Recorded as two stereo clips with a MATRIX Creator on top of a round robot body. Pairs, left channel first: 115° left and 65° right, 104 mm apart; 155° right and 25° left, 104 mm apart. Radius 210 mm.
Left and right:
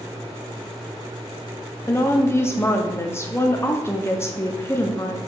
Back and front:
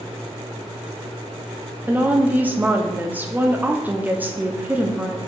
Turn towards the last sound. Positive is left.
turn(degrees=75)